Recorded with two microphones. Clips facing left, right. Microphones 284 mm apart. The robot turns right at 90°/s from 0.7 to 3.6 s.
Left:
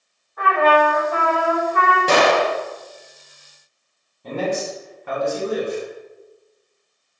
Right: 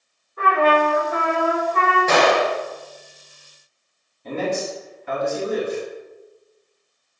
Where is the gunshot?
95° left, 0.6 m; by 2.5 s 135° left, 0.6 m.